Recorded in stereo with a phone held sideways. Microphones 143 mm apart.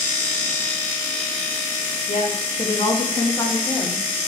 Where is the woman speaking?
55° left (ahead or behind), 2.0 m; by 4.1 s 5° left (ahead or behind), 2.5 m.